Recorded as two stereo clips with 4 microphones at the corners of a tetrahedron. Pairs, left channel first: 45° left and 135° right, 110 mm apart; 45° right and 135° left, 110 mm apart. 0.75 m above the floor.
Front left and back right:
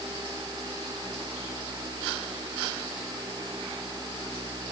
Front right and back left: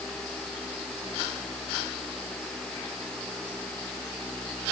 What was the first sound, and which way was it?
Only background noise.